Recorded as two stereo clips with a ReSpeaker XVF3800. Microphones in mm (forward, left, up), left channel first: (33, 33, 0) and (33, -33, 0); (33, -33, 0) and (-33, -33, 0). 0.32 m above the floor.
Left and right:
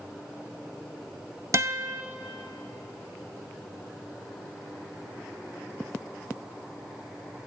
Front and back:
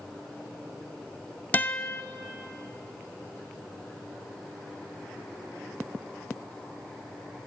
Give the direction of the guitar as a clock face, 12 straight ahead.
2 o'clock.